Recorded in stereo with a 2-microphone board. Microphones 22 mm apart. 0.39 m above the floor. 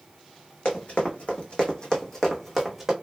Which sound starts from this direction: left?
Running footsteps, at 0.7 s.